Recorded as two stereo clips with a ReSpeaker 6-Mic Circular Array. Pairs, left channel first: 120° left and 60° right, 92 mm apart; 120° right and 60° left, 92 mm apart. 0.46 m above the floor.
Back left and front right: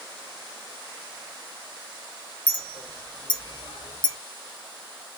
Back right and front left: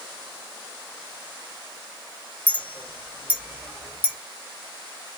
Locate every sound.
2.5 s a clink: 130° left, 0.9 m